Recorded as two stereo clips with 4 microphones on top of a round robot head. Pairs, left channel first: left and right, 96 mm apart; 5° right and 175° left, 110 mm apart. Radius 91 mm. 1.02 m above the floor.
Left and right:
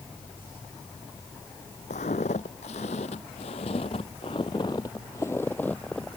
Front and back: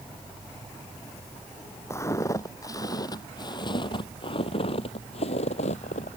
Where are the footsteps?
60° left; by 6.2 s straight ahead.